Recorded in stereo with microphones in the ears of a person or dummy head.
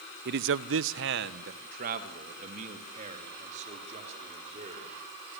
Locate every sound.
0.2 s a man speaking: 55° right (ahead or behind), 0.9 m; by 5.4 s 30° right (ahead or behind), 6.5 m